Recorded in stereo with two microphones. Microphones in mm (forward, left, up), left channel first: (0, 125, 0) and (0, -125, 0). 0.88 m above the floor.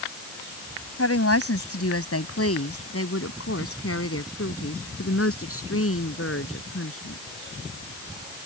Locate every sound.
1.0 s a woman speaking: 75° left (ahead or behind); by 7.2 s 65° left (ahead or behind)